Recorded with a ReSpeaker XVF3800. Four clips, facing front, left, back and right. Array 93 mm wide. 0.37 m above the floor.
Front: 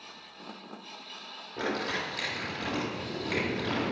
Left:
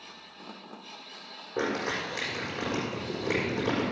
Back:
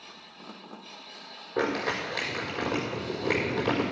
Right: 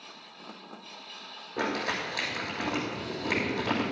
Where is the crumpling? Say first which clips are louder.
Left 1 dB, back 4 dB; 155° left, 6 m.